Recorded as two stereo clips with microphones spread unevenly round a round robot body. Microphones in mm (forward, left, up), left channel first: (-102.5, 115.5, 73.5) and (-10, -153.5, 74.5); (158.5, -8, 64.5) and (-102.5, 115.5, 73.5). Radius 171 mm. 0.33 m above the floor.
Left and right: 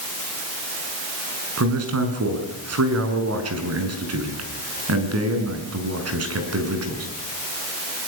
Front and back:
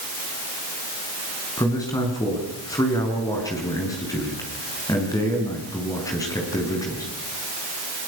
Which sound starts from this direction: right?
A man speaking, at 1.6 s.